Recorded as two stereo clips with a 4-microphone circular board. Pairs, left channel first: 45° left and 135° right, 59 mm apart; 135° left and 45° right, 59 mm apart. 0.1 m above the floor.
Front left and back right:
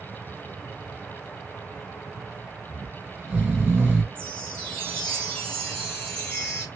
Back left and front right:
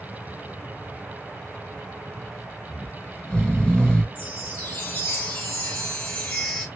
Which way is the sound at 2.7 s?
175° right.